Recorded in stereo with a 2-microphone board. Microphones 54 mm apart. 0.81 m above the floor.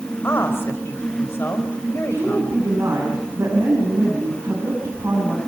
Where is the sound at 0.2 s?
50° left (ahead or behind), 4 m.